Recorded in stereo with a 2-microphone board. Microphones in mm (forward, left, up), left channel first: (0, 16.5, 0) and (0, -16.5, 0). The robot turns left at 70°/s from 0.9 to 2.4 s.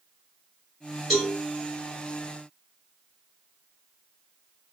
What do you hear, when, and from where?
1.1 s a cowbell: centre (ahead or behind), 2 m; by 1.3 s 15° right (ahead or behind), 2 m